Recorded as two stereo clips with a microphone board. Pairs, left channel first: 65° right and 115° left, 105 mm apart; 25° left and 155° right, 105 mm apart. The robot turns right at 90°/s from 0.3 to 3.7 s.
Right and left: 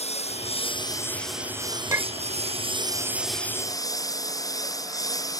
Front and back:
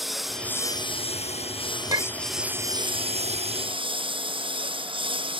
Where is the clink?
160° left; by 2.3 s 165° right.